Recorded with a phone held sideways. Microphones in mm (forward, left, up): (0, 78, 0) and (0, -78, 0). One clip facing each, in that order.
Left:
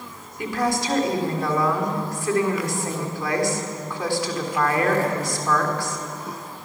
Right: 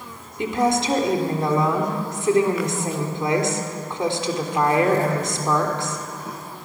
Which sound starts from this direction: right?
A woman speaking, at 0.4 s.